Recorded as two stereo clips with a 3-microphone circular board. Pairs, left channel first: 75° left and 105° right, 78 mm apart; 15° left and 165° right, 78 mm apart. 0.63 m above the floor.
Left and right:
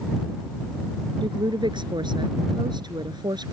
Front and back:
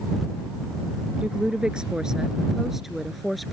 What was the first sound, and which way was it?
A woman speaking, 90° right.